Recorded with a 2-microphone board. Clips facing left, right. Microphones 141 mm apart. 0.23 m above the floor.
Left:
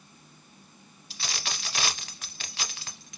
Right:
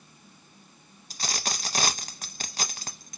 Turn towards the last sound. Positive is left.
turn(degrees=-45)  # may be behind; listen again after turning